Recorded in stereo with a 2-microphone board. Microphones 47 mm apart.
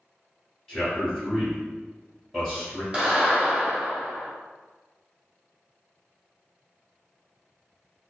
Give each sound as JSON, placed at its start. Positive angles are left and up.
{"t": 0.7, "sound": "a man speaking", "side_deg": 10, "distance_m": 1.3}
{"t": 2.9, "sound": "a clap", "side_deg": -20, "distance_m": 1.4}